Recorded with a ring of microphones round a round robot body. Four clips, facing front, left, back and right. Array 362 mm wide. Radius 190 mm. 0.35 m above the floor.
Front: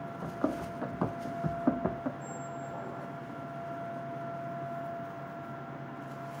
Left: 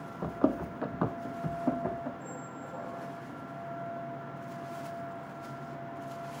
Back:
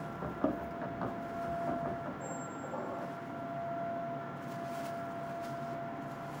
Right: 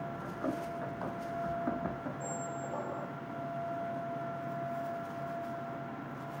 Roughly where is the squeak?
Behind right.